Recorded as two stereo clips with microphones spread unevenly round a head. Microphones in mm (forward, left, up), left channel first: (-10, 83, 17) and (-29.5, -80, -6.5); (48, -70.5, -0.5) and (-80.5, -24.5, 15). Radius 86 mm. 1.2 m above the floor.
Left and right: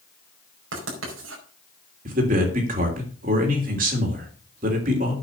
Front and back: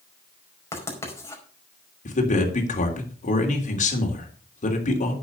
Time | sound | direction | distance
0.7 | writing | 90° right | 5 m
2.0 | a man speaking | 50° right | 3 m